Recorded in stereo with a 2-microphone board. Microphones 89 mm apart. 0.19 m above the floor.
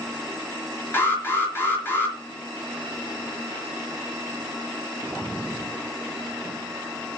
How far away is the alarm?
About 3.5 m.